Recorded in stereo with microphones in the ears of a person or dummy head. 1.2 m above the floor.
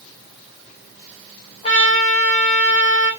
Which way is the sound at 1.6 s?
35° left (ahead or behind).